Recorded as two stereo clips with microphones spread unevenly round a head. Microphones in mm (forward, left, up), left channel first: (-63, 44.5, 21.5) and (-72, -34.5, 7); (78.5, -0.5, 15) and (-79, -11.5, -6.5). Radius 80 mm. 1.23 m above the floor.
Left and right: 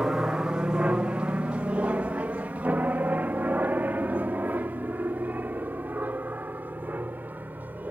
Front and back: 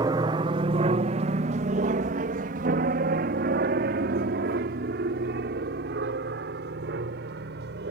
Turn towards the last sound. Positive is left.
turn(degrees=-165)